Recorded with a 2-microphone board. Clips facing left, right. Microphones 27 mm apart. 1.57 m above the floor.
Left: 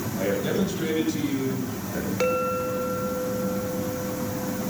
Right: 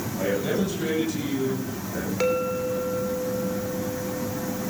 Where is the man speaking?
15° left (ahead or behind), 9.5 m; by 2.1 s 20° left (ahead or behind), 10.5 m.